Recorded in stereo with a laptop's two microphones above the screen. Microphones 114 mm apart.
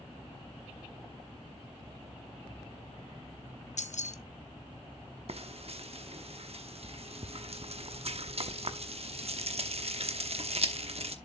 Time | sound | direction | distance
3.8 | keys jangling | 80° left | 0.8 m
5.3 | frying | 55° right (ahead or behind) | 0.8 m